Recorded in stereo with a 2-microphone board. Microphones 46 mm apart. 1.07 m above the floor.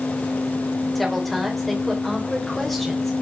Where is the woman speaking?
5° left (ahead or behind), 4.5 m.